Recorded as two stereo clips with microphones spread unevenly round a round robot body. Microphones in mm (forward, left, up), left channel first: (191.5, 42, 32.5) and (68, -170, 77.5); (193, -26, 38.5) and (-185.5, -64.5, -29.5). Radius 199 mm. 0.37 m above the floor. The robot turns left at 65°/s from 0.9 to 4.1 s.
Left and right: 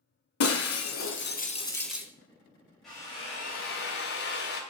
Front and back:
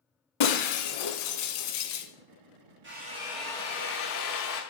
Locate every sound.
0.4 s breaking glass: 35° left, 1.6 m; by 2.1 s 40° right, 1.6 m
2.8 s a drill: 140° left, 2 m; by 4.6 s 60° left, 2 m